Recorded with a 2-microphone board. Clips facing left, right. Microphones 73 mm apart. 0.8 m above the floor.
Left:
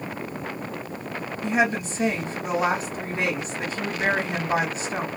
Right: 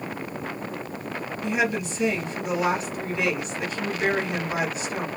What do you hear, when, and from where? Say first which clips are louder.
1.4 s a woman speaking: left 2 dB; 35° left (ahead or behind), 1.1 m